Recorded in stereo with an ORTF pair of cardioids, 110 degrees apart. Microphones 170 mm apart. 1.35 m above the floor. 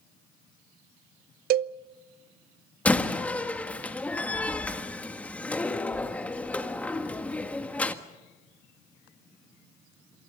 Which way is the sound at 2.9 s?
10° left.